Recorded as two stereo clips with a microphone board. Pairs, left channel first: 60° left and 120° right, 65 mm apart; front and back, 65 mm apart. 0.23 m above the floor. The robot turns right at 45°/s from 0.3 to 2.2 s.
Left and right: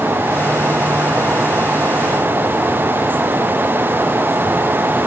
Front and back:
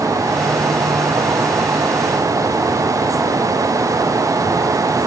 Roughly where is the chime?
No chime in this recording.